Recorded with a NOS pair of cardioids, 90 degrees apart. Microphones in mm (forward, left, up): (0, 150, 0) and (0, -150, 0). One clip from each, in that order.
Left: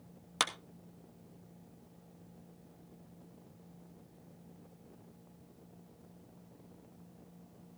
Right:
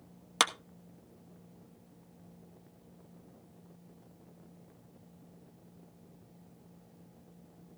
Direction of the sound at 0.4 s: 25° right.